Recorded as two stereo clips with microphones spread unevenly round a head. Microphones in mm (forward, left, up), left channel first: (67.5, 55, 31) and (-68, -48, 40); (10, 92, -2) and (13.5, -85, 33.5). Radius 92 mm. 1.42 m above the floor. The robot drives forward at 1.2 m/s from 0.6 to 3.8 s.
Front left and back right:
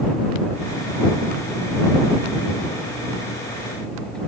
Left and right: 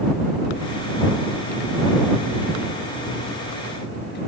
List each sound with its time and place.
Only background noise.